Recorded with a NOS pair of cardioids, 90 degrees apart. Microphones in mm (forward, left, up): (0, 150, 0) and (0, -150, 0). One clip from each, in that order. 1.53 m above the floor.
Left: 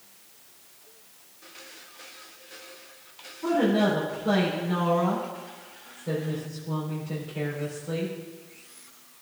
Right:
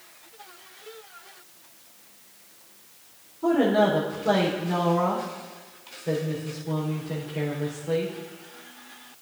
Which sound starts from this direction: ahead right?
A woman speaking, at 3.4 s.